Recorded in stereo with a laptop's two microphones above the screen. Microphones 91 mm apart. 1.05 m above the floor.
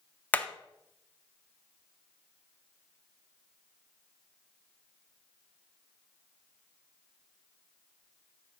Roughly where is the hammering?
Centre.